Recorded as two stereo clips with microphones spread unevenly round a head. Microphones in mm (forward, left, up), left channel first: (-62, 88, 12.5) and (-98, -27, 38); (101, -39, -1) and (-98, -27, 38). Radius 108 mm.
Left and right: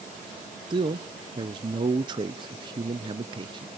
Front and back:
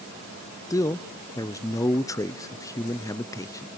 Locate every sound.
0.7 s a man speaking: 85° right, 0.6 m